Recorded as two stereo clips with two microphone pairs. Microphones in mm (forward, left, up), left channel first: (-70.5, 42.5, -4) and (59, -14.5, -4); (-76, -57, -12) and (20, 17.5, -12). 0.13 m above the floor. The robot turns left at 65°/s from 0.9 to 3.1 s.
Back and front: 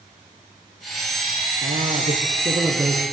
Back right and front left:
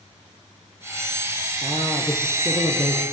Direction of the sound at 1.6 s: 20° right.